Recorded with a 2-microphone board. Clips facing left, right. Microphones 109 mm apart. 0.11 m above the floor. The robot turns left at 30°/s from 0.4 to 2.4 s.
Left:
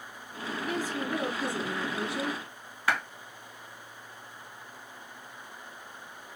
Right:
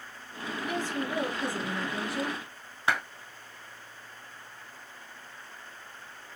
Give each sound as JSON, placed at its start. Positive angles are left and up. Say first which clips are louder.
{"t": 0.6, "sound": "a woman speaking", "louder": "even", "azimuth_deg": -35, "distance_m": 2.0}
{"t": 2.9, "sound": "a clap", "louder": "even", "side_deg": -20, "distance_m": 1.1}